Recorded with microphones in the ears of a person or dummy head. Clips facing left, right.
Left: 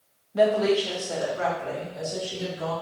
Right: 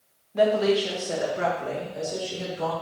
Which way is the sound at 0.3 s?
5° left (ahead or behind).